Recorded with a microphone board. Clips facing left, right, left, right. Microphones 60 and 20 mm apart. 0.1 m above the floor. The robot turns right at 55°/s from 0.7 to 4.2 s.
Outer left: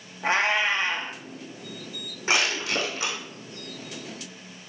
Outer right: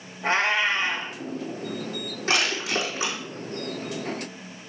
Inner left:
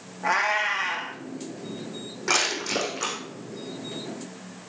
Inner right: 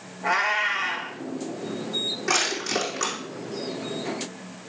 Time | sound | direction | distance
0.2 | a cat meowing | 20° left (ahead or behind) | 2 m
2.3 | crushing | 15° left (ahead or behind) | 4.5 m